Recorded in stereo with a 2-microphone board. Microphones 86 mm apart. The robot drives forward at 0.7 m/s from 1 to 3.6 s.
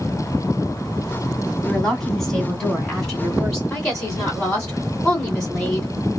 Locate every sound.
1.6 s a woman speaking: 10° left (ahead or behind), 2 m; by 3.6 s 5° left (ahead or behind), 3.5 m
3.7 s a woman speaking: 10° left (ahead or behind), 2 m